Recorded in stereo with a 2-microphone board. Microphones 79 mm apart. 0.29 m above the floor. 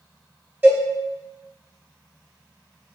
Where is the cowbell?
25° right (ahead or behind), 0.8 m.